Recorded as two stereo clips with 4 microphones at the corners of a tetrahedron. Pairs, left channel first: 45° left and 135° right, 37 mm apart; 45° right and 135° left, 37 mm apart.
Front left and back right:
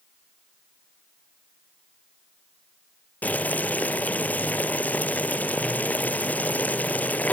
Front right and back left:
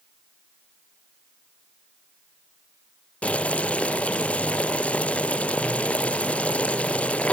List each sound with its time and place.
3.2 s boiling: 5° left, 1.2 m